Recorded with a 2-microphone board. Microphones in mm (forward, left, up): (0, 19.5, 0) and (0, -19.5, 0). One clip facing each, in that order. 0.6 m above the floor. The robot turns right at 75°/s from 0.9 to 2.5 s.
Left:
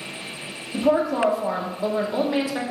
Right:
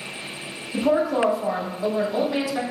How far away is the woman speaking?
About 0.6 m.